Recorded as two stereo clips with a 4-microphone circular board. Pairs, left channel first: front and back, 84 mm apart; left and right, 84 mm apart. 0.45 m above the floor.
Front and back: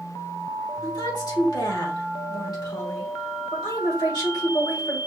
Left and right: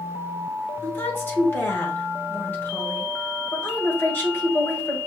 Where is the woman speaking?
30° left, 1.8 m.